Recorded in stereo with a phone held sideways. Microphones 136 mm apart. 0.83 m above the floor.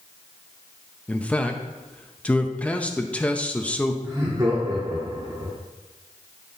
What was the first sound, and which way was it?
A man speaking, 10° left (ahead or behind).